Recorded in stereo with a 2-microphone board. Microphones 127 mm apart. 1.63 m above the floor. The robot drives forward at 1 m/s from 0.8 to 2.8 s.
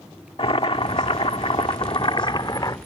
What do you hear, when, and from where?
0.4 s boiling: 50° left (ahead or behind); by 2.8 s 35° left (ahead or behind)